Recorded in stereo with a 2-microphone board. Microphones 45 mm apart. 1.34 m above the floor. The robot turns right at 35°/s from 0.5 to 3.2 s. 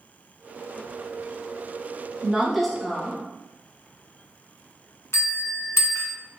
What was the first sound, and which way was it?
A woman speaking, 15° right.